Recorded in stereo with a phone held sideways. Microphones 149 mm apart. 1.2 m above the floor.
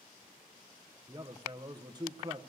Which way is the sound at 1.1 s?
25° right (ahead or behind).